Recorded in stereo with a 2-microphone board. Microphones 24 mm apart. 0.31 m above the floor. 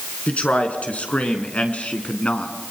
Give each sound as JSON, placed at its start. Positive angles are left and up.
{"t": 0.3, "sound": "a man speaking", "side_deg": 70, "distance_m": 4.5}